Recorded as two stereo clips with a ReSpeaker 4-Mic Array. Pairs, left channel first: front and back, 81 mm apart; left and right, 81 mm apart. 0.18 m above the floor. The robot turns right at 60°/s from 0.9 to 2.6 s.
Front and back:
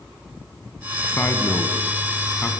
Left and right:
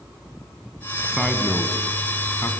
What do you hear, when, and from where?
1.1 s a man speaking: 15° right, 1.7 m; by 2.5 s 70° left, 1.7 m